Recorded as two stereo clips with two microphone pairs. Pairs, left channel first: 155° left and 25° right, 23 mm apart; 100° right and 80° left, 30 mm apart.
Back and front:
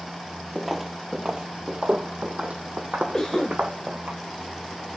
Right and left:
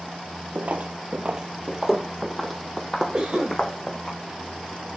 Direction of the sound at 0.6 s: 70° left.